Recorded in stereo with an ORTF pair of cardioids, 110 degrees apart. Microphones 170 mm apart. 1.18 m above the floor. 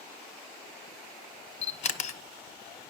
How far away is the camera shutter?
About 0.7 m.